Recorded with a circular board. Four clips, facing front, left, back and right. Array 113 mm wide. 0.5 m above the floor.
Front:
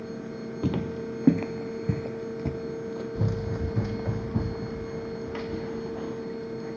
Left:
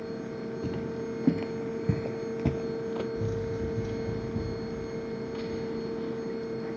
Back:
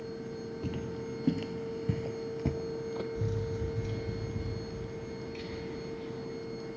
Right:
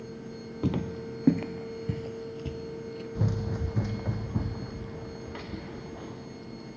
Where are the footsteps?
35° right, 0.8 m; by 3.0 s 100° left, 0.9 m.